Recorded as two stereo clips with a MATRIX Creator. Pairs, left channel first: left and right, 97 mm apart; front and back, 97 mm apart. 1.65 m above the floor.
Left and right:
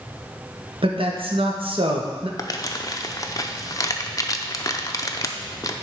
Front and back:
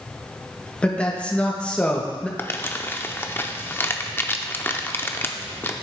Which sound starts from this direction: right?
A man speaking, at 0.8 s.